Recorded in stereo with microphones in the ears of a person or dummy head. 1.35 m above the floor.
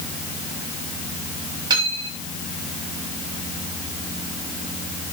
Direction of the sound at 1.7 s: 20° right (ahead or behind).